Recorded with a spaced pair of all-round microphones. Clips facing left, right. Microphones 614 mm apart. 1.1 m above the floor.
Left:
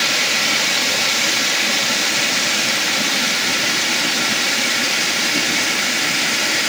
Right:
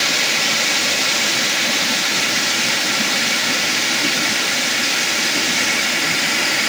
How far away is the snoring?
I don't hear snoring.